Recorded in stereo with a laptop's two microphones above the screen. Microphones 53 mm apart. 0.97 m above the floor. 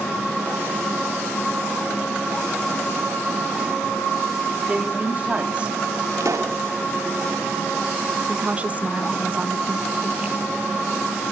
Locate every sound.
4.7 s a woman speaking: 25° right (ahead or behind), 3 m; by 6.1 s 20° right (ahead or behind), 1.6 m
6.2 s a pop: 90° right, 1.5 m
8.3 s a woman speaking: 25° right (ahead or behind), 0.7 m